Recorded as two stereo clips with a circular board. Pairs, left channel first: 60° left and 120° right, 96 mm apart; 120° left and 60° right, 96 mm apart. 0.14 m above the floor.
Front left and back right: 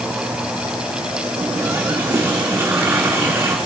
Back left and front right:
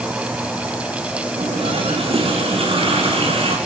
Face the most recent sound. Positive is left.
turn(degrees=-50)